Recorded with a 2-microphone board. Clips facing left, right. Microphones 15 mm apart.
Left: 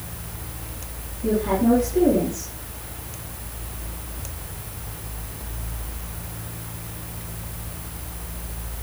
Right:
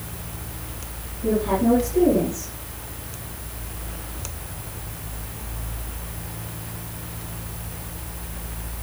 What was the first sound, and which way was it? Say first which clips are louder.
A woman speaking: even; 45° left (ahead or behind).